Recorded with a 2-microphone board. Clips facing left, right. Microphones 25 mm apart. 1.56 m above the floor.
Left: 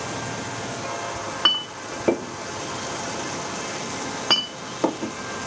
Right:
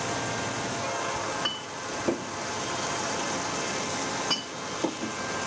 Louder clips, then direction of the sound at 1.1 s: Left 8 dB; 55° left (ahead or behind).